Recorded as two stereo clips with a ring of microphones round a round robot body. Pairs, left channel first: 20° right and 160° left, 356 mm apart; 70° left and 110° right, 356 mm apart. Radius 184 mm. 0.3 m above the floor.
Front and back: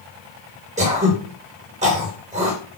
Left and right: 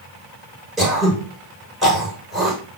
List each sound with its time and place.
0.8 s throat clearing: 160° left, 1.5 m